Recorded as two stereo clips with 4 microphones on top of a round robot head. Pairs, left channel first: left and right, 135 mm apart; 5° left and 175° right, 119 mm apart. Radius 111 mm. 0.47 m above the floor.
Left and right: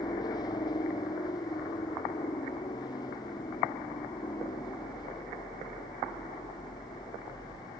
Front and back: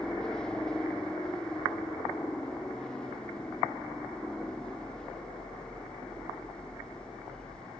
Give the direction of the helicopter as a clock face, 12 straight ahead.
9 o'clock.